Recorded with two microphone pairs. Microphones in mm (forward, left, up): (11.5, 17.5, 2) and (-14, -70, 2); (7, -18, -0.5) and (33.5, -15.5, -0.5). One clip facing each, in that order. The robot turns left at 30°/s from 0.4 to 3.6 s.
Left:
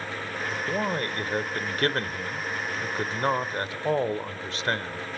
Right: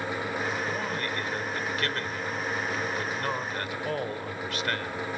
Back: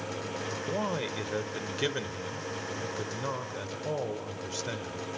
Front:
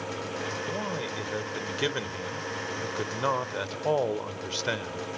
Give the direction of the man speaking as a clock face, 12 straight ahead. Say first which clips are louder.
Left 3 dB, back 3 dB; 8 o'clock.